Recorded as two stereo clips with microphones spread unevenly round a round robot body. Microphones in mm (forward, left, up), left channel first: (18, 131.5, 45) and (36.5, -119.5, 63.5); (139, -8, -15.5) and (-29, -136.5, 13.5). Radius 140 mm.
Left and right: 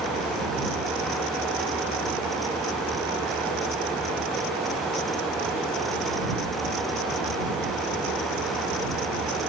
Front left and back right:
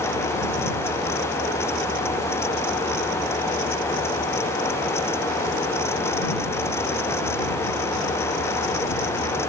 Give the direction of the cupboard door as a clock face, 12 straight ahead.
No cupboard door in this recording.